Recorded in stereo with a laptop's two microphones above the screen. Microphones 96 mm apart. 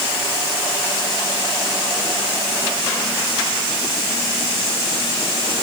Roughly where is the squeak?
No squeak in this recording.